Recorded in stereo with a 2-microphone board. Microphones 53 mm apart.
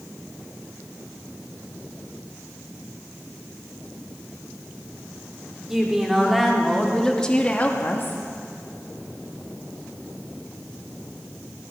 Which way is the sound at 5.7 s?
10° right (ahead or behind).